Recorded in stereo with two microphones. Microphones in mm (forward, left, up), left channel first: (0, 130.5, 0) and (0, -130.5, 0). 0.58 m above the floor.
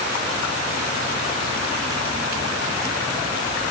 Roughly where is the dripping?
No dripping in this recording.